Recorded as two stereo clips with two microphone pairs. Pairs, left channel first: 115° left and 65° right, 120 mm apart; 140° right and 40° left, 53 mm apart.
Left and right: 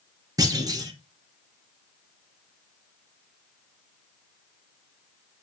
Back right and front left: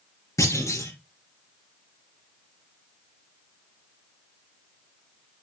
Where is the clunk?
125° right, 3.5 m.